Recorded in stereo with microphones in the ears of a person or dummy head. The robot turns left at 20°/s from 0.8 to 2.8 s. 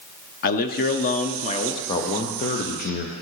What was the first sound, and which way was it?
A man speaking, 50° left (ahead or behind).